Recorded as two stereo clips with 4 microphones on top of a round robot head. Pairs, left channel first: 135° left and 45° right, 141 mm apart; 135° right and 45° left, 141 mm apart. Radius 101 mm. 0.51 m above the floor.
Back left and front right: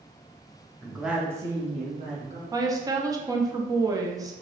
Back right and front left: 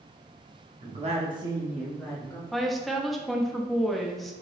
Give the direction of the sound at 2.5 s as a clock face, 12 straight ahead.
2 o'clock.